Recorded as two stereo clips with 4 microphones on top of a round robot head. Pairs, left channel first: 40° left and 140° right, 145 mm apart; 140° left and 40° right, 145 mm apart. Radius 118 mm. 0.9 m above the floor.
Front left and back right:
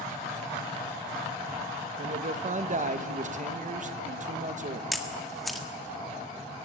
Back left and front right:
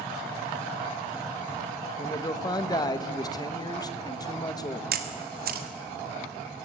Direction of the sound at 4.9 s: 50° right.